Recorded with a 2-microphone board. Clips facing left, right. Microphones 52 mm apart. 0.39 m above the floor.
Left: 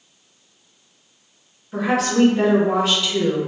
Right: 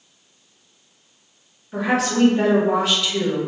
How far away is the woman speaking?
About 0.9 m.